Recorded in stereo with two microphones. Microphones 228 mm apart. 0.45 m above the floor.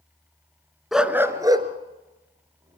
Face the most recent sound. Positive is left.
turn(degrees=-30)  # may be behind; listen again after turning